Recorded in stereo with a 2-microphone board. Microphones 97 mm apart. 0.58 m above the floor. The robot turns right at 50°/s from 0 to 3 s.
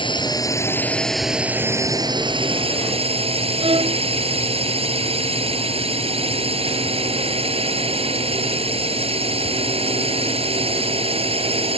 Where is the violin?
75° right (ahead or behind).